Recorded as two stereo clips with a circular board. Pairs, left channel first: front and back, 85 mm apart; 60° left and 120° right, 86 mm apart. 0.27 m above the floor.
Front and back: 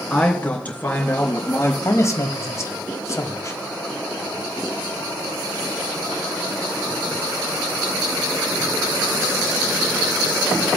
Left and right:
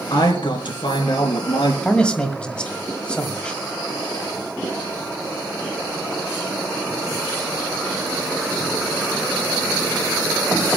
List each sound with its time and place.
0.1 s a man speaking: 75° left, 3 m; by 1.7 s 65° left, 3.5 m
1.8 s a man speaking: 10° right, 1.8 m